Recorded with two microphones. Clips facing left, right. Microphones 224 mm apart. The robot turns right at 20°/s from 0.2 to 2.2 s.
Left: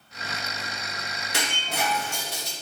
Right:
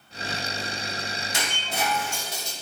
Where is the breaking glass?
70° left (ahead or behind), 1.2 m; by 2.5 s 65° left (ahead or behind), 1.2 m.